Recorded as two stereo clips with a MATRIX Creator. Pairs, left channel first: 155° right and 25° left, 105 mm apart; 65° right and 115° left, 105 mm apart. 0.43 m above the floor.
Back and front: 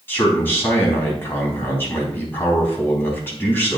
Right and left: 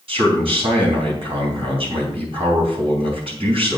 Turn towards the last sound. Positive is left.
turn(degrees=135)